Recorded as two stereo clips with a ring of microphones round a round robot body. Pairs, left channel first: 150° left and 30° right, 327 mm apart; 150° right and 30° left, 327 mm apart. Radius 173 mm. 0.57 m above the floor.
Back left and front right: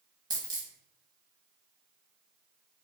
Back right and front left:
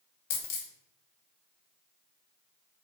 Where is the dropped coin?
110° right, 0.9 m.